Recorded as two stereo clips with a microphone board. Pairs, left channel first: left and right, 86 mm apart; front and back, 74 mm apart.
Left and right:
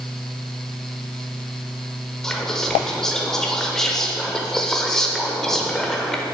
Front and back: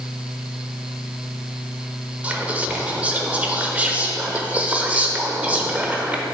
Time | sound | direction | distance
2.2 | whispering | 165° left | 0.8 m